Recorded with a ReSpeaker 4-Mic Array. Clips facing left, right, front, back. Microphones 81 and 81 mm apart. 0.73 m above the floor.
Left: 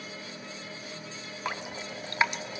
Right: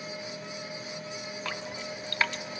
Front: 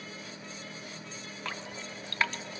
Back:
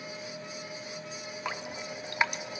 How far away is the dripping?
About 0.6 m.